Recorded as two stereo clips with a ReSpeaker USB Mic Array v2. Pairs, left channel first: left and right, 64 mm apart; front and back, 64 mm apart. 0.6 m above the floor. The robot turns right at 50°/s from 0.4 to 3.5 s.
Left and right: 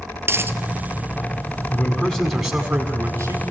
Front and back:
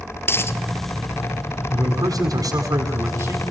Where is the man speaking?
145° left, 6 m; by 3.4 s 130° right, 6 m.